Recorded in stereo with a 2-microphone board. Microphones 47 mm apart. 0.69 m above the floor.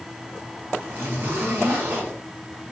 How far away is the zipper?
About 5 m.